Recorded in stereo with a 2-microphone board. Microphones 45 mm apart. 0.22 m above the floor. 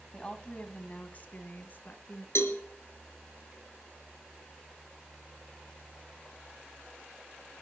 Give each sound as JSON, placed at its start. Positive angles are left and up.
{"t": 0.1, "sound": "a woman speaking", "side_deg": 20, "distance_m": 1.2}
{"t": 2.4, "sound": "a cowbell", "side_deg": 70, "distance_m": 2.5}